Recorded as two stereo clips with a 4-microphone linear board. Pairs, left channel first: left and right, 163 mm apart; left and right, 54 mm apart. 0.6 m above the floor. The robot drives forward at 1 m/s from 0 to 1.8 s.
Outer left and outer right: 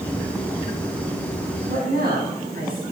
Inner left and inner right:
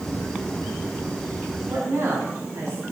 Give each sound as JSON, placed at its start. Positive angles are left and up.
{"t": 1.7, "sound": "a woman speaking", "side_deg": -65, "distance_m": 3.5}